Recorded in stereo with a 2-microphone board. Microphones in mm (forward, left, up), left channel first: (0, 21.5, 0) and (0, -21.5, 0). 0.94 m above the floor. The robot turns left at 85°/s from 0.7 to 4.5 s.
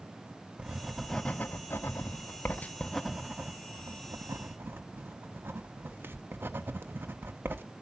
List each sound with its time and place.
0.6 s writing: 20° right (ahead or behind), 1.1 m; by 7.6 s 55° right (ahead or behind), 1.1 m